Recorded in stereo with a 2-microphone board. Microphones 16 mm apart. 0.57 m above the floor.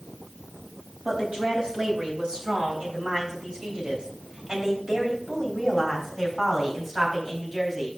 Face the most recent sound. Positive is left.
turn(degrees=-25)  # may be behind; listen again after turning